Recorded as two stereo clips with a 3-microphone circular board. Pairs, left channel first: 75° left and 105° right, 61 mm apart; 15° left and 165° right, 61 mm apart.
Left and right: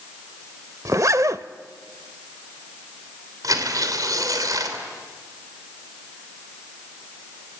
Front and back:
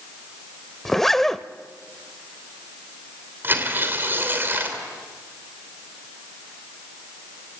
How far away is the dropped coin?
No dropped coin in this recording.